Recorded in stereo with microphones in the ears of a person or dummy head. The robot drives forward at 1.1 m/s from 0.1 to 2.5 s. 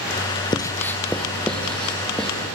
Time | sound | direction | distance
0.5 | writing | 20° left (ahead or behind) | 0.6 m